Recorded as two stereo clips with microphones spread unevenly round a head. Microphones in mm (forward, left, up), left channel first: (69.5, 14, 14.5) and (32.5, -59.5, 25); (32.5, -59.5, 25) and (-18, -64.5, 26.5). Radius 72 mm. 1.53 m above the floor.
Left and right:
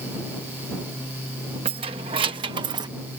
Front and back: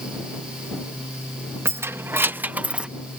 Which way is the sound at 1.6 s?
140° right.